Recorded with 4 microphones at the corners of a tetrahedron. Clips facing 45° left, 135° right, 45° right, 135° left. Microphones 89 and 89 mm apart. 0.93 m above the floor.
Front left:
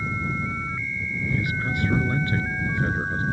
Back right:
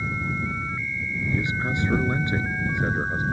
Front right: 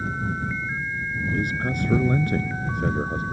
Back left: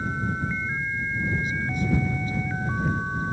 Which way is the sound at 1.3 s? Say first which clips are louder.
Back right 1 dB, front right 2 dB; 70° right.